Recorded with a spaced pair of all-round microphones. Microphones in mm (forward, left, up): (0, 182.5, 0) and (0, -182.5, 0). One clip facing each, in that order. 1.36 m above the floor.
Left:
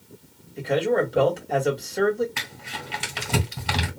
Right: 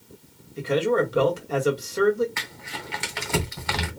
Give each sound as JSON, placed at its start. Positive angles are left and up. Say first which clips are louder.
{"t": 0.6, "sound": "a man speaking", "louder": "even", "side_deg": -10, "distance_m": 2.0}
{"t": 2.4, "sound": "crumpling", "louder": "even", "side_deg": 40, "distance_m": 2.0}